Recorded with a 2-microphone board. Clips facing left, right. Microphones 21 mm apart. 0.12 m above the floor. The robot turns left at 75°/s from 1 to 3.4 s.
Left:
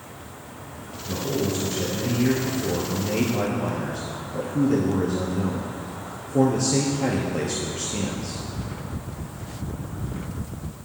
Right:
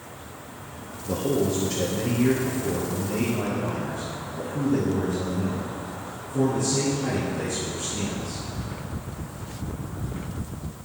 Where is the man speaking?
80° right, 2 m; by 8.4 s 100° left, 2 m.